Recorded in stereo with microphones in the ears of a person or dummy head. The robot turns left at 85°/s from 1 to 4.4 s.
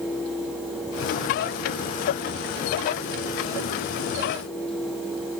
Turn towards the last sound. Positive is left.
No sound to turn to.